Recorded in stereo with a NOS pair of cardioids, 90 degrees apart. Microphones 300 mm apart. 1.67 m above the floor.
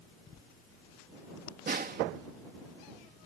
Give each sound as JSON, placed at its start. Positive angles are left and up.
{"t": 1.7, "sound": "a snare drum", "azimuth_deg": -30}